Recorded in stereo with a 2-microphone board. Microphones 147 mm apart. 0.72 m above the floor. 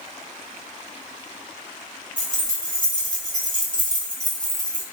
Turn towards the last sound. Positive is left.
turn(degrees=25)  # may be behind; listen again after turning